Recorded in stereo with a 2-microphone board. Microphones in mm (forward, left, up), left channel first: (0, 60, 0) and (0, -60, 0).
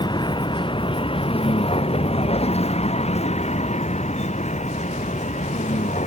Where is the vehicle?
40° left (ahead or behind); by 6.1 s 75° left (ahead or behind).